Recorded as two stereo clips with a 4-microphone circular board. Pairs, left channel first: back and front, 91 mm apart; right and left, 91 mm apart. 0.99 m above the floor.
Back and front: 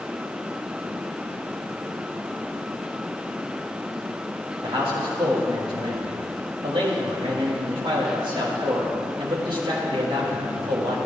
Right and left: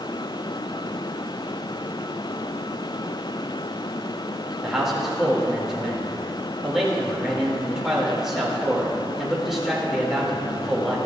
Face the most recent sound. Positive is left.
turn(degrees=5)